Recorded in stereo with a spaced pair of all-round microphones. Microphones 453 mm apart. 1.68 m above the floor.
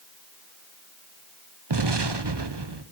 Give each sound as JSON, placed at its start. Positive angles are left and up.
{"t": 1.7, "sound": "an explosion", "side_deg": -60, "distance_m": 0.9}